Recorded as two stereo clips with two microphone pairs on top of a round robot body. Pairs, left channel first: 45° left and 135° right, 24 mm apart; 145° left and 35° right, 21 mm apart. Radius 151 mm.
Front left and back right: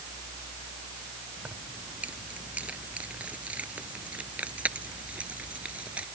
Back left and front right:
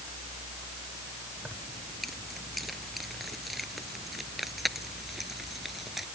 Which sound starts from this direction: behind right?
Keys jangling, at 1.4 s.